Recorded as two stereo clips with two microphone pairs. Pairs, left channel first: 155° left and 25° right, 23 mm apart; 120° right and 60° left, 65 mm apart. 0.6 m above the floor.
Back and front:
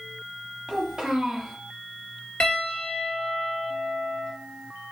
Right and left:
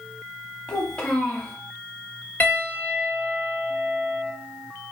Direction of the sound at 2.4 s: Straight behind.